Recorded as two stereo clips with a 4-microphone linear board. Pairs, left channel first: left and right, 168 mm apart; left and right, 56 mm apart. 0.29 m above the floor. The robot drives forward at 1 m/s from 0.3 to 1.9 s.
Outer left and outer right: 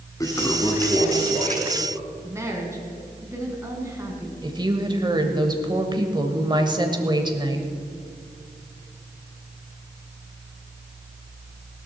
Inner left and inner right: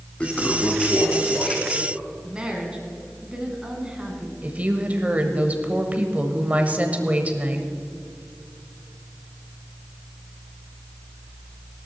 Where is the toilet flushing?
20° left (ahead or behind), 1.2 m; by 2.1 s 10° left (ahead or behind), 2.5 m.